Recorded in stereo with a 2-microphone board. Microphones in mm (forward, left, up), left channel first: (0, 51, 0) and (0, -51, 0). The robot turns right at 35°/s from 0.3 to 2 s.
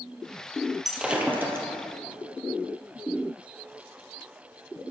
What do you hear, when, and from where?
0.8 s breaking glass: 5° right (ahead or behind), 1.7 m; by 1.7 s 30° right (ahead or behind), 1.7 m